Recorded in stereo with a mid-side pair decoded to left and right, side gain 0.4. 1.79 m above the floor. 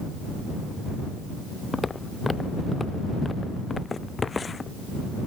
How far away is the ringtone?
I don't hear a ringtone.